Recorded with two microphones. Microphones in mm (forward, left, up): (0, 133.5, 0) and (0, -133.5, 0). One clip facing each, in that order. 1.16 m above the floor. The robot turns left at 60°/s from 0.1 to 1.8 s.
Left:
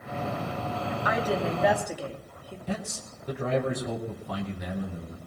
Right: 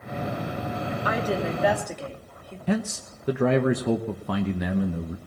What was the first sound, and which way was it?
A woman speaking, 140° right.